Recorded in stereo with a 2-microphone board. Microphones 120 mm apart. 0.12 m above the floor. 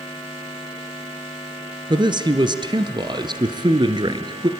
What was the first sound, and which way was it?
A man speaking, 40° right (ahead or behind).